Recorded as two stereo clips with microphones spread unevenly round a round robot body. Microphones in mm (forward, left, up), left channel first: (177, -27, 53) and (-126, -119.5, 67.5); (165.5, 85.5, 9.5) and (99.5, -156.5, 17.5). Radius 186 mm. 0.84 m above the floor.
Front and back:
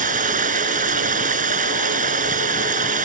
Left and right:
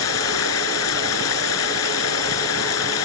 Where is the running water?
125° left.